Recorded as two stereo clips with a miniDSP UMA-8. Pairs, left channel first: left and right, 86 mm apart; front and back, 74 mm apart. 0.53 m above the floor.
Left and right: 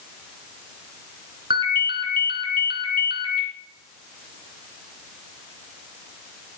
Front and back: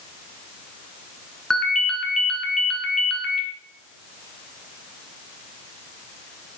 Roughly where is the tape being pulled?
I don't hear tape being pulled.